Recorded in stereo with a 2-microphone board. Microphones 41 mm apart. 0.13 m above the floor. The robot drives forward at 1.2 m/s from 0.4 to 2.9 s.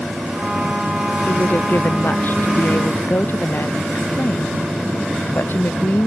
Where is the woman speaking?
55° left (ahead or behind); by 6.1 s 60° left (ahead or behind).